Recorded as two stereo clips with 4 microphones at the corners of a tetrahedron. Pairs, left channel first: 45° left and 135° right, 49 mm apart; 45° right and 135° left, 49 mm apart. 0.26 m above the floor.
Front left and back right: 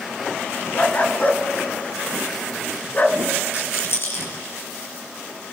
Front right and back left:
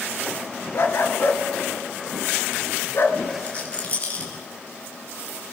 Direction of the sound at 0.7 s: 10° right.